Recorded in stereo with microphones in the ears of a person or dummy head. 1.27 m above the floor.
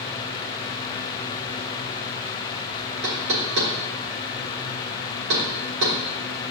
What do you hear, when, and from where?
3.0 s knocking: 70° right (ahead or behind), 3.5 m